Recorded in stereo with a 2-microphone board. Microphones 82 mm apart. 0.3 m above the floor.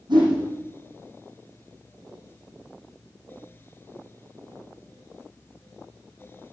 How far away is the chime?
No chime in this recording.